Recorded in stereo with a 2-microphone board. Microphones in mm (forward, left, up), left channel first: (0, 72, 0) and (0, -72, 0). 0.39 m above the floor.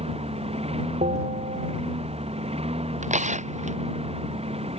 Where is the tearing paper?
55° right (ahead or behind).